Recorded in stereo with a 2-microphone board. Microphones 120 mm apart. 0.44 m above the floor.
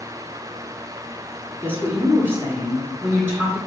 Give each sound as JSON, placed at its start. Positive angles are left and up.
{"t": 1.6, "sound": "a woman speaking", "side_deg": -20, "distance_m": 1.2}